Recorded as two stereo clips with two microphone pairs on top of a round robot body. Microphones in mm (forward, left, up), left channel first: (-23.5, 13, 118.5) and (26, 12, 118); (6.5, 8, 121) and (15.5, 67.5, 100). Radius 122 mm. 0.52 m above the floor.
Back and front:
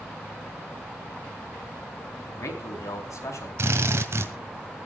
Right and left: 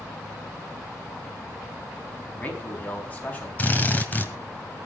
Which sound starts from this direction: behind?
A man speaking, at 2.3 s.